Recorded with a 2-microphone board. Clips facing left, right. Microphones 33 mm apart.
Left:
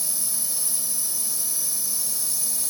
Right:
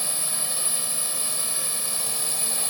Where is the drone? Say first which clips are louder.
Right 3 dB; 45° right (ahead or behind).